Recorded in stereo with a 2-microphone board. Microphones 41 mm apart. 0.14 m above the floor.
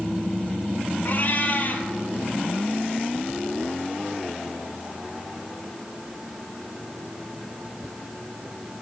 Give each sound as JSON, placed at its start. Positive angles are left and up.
{"t": 1.1, "sound": "a cat meowing", "side_deg": 50, "distance_m": 0.7}